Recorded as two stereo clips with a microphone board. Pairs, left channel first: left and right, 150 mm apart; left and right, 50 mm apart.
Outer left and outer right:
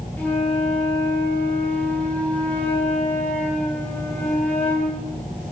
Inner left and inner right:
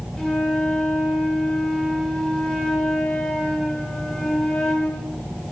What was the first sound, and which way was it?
A flute, 10° left (ahead or behind).